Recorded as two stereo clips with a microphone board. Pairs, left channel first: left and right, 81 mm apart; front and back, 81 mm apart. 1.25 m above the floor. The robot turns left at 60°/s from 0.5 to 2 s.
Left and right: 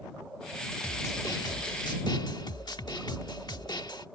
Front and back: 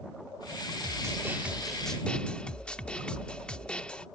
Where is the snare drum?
145° left; by 4.0 s 75° left.